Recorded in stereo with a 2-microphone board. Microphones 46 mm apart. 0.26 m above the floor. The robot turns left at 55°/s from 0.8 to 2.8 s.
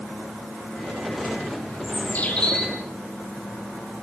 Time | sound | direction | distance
1.8 | a bird | 50° left | 5.5 m